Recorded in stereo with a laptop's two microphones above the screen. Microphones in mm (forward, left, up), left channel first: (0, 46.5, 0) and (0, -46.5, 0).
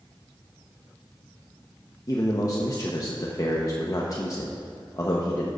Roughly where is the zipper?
No zipper in this recording.